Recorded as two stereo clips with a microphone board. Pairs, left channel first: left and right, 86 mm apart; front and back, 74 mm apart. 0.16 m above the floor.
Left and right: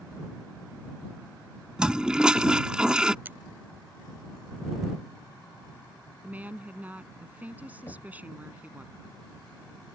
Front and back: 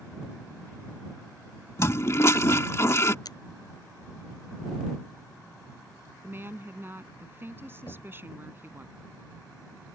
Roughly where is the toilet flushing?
Ahead.